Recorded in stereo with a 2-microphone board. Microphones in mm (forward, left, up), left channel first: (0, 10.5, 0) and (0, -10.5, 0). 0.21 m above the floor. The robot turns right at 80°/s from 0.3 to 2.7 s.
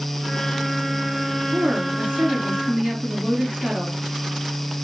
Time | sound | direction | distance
1.5 | a woman speaking | 135° right | 4.5 m